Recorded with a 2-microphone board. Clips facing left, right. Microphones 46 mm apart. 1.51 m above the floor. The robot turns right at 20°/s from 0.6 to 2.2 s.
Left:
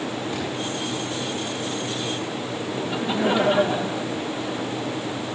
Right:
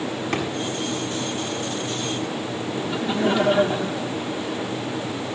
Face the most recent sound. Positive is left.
turn(degrees=15)  # may be behind; listen again after turning